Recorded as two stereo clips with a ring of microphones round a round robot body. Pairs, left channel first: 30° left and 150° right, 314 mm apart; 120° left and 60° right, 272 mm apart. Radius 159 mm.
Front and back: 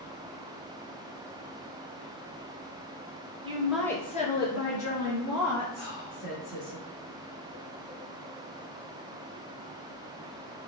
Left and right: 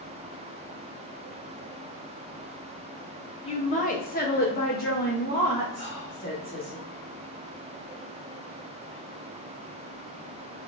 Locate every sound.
3.4 s a woman speaking: 160° left, 0.6 m; by 6.8 s 55° left, 1.8 m
5.8 s whispering: 5° left, 1.0 m